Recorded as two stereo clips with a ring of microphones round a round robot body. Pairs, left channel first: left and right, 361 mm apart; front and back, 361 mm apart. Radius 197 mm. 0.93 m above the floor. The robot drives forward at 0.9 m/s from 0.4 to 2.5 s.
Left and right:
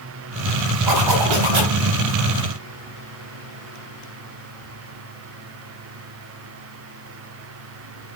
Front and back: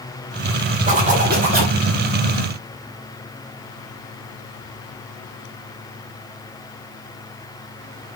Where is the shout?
I don't hear a shout.